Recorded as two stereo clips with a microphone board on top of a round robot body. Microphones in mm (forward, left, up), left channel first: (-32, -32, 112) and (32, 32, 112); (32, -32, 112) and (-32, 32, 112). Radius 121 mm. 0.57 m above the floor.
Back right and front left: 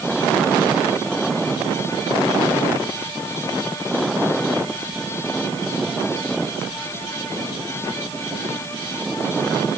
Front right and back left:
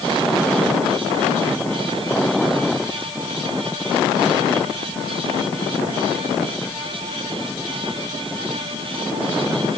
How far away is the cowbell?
No cowbell in this recording.